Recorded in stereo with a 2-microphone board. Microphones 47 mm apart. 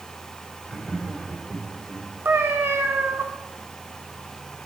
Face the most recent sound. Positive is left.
turn(degrees=-60)  # may be behind; listen again after turning